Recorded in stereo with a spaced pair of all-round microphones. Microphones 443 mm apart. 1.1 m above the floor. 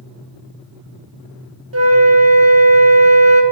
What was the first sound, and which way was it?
A flute, 35° right (ahead or behind).